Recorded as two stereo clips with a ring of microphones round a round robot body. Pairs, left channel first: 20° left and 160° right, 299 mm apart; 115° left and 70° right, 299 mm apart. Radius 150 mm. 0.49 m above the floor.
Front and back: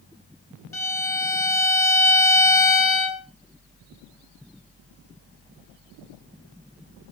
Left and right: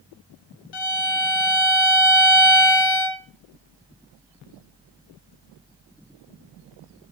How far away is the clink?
I don't hear a clink.